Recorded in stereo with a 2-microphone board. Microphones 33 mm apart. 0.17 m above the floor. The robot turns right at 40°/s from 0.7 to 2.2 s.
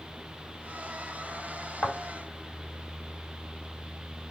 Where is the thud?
40° left (ahead or behind), 2.5 m; by 2.0 s 45° left (ahead or behind), 2.5 m.